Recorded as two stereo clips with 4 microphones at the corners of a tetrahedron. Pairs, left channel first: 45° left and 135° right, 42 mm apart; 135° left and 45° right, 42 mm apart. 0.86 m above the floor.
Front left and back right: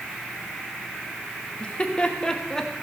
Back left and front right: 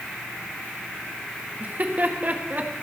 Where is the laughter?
5° right, 1.6 m; by 2.7 s 30° right, 1.2 m.